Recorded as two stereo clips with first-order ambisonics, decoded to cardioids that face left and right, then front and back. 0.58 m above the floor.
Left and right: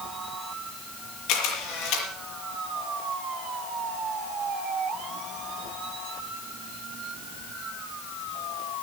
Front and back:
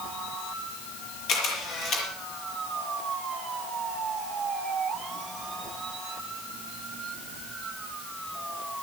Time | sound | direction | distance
1.3 | a camera shutter | 50° left | 6 m